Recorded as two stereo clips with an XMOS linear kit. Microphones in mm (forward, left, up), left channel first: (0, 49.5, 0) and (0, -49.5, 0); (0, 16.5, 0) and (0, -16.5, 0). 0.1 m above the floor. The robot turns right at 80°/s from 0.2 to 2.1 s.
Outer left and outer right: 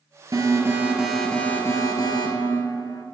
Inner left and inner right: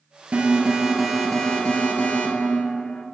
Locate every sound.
0.3 s an alarm: 65° right, 1.2 m; by 3.0 s 75° left, 1.2 m